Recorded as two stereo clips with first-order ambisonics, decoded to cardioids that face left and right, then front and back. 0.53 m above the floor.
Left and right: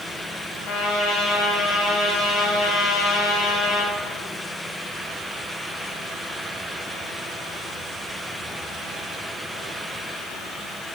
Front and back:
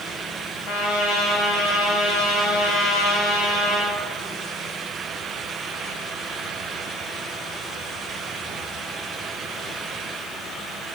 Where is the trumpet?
45° left, 1.9 m.